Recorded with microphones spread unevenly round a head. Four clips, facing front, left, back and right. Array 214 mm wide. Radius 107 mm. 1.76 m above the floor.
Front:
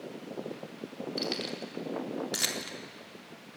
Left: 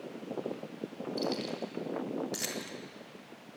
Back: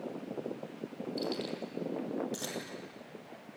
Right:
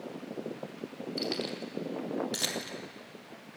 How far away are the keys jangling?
About 4.5 m.